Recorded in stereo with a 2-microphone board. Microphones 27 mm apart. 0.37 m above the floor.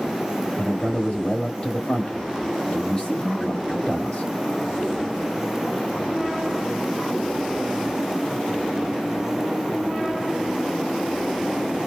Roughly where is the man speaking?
Left.